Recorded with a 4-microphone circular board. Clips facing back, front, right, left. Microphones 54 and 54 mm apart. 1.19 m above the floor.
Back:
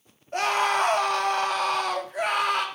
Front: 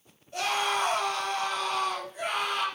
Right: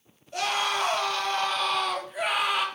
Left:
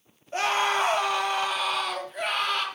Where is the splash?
No splash in this recording.